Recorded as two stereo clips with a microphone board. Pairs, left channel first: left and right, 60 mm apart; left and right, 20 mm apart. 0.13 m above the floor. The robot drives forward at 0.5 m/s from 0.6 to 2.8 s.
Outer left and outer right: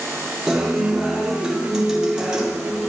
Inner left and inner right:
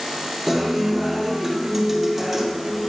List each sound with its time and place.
0.5 s a guitar: 10° right (ahead or behind), 2.5 m; by 2.9 s 15° right (ahead or behind), 1.7 m